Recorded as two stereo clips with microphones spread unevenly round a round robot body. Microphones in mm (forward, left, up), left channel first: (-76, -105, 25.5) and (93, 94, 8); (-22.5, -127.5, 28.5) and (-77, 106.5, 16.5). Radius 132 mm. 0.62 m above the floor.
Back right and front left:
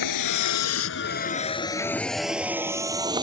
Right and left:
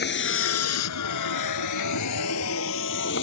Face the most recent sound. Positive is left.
turn(degrees=-25)